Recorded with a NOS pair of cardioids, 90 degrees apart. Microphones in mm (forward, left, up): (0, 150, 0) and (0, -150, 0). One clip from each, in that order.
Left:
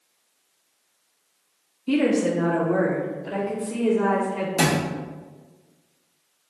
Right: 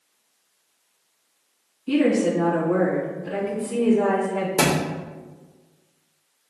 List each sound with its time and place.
1.9 s a woman speaking: 5° left, 0.9 m; by 4.5 s straight ahead, 2 m
4.6 s a thud: 25° right, 1.4 m